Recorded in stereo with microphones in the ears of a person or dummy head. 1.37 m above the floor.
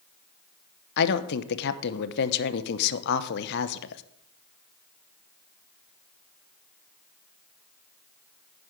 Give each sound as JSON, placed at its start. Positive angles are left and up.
{"t": 1.0, "sound": "a woman speaking", "side_deg": 55, "distance_m": 0.9}